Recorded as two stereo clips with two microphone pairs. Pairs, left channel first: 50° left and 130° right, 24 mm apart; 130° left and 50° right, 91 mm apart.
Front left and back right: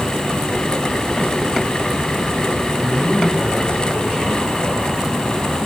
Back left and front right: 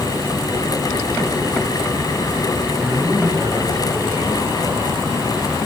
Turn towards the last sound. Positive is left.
turn(degrees=20)